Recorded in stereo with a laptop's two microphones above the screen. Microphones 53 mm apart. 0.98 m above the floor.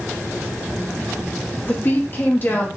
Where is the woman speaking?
40° left (ahead or behind), 1.5 m.